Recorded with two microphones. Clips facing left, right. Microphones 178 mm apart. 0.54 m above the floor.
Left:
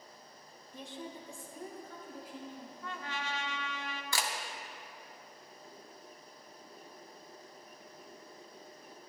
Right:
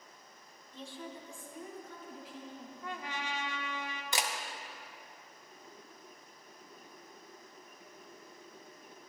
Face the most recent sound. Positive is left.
turn(degrees=-20)  # may be behind; listen again after turning